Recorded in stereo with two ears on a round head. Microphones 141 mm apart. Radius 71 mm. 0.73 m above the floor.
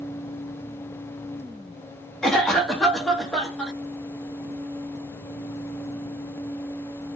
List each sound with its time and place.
2.2 s a cough: 5° left (ahead or behind), 0.7 m